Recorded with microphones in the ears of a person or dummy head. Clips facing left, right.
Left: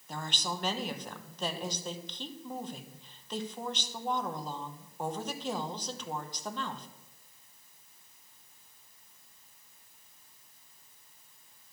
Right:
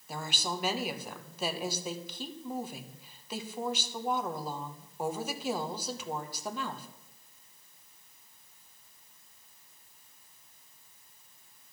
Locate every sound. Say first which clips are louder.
0.1 s a woman speaking: right 1 dB; 10° right (ahead or behind), 1.0 m